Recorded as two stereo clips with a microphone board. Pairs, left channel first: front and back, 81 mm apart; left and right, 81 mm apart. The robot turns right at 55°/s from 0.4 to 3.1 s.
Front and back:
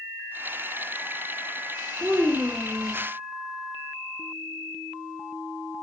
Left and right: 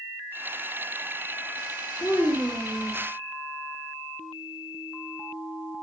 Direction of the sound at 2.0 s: 135° right.